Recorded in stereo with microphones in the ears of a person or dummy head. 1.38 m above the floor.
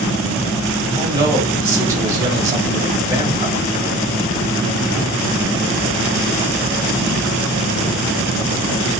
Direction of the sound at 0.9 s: 15° right (ahead or behind).